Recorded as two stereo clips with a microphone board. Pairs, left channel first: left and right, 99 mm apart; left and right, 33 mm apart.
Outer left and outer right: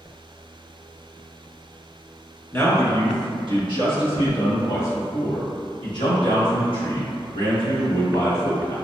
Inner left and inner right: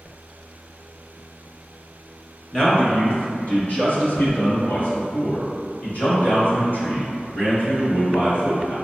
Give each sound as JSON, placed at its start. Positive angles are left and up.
{"t": 2.5, "sound": "a man speaking", "side_deg": 25, "distance_m": 1.1}